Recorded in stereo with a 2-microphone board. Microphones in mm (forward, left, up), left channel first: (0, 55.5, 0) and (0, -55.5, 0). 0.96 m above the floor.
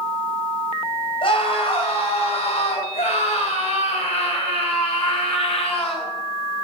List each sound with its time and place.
1.2 s a scream: 55° left (ahead or behind), 4.5 m; by 6.1 s 65° left (ahead or behind), 5.5 m